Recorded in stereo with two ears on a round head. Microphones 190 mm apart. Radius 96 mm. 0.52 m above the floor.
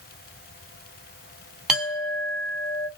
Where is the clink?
5° right (ahead or behind), 1.1 m.